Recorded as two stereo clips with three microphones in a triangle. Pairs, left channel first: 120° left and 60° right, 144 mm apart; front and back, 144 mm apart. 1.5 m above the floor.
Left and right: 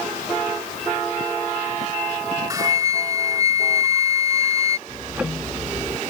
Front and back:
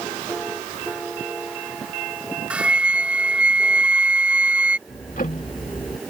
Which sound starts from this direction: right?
A flute, at 2.5 s.